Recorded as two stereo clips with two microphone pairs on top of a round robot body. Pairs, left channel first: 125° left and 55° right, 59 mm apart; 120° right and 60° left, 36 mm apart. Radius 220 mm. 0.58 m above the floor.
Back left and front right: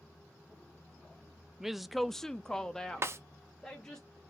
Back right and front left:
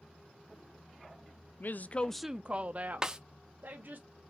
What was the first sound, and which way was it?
A woman speaking, 135° right.